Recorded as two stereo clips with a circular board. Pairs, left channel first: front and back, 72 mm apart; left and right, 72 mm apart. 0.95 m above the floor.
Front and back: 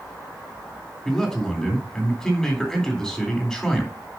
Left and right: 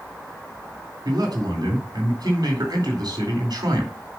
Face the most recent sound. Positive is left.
turn(degrees=-80)